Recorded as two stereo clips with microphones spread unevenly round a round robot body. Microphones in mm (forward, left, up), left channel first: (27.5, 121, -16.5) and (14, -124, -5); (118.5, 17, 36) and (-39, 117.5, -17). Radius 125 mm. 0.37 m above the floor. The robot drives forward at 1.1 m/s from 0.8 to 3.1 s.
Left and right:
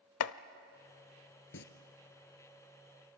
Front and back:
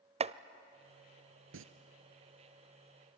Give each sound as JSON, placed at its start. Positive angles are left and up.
{"t": 0.2, "sound": "chopping", "azimuth_deg": 105, "distance_m": 0.6}
{"t": 1.5, "sound": "singing", "azimuth_deg": 135, "distance_m": 1.1}